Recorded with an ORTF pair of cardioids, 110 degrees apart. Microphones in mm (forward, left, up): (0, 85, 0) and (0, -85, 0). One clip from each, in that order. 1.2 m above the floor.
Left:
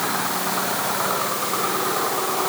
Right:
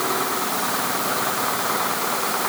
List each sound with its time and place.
Only background noise.